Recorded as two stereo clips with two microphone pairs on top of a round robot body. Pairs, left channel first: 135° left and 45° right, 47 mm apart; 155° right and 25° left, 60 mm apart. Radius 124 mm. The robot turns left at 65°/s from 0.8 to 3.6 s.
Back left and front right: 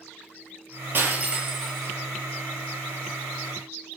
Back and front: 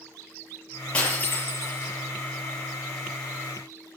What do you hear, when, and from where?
0.9 s breaking glass: 85° right, 6.5 m; by 1.9 s 150° right, 6.5 m